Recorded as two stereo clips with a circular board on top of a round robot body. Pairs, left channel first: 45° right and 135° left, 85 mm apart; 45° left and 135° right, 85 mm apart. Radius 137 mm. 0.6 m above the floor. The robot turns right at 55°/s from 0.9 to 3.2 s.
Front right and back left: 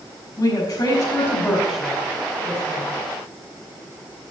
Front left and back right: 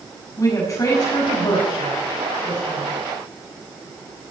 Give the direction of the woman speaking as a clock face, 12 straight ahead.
12 o'clock.